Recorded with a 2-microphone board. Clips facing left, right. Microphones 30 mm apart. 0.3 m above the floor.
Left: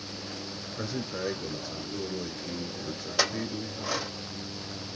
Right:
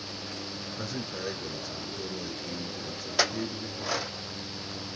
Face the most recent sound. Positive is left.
turn(degrees=-5)  # may be behind; listen again after turning